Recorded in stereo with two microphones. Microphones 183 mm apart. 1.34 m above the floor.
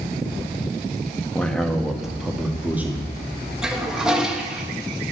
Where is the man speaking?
5° left (ahead or behind), 1.6 m; by 3.1 s 10° right (ahead or behind), 2.5 m.